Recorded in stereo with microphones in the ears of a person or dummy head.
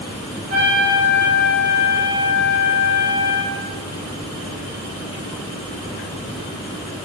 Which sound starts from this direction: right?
A trumpet, at 0.5 s.